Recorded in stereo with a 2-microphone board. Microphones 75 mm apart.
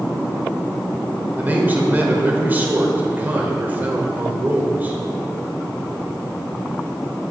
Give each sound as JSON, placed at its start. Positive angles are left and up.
{"t": 1.4, "sound": "a man speaking", "side_deg": -25, "distance_m": 1.1}